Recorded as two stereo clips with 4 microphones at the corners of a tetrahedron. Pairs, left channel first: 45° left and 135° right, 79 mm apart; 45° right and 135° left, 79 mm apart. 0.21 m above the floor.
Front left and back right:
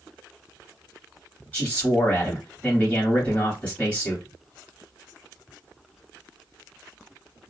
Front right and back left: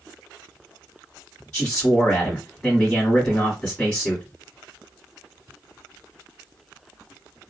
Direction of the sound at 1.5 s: 5° left.